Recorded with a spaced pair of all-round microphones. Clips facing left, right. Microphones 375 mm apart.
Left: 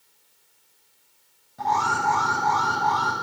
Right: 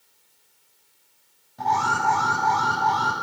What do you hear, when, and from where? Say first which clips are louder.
1.6 s an alarm: right 1 dB; centre (ahead or behind), 9 m